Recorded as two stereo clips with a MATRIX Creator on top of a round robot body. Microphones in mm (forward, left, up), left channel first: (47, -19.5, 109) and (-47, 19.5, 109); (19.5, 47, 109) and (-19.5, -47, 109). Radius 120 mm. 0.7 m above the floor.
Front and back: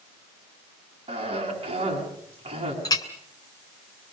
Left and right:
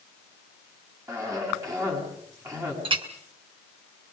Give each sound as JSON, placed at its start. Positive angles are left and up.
{"t": 1.1, "sound": "a cough", "azimuth_deg": -175, "distance_m": 9.5}
{"t": 2.9, "sound": "a clink", "azimuth_deg": -75, "distance_m": 2.5}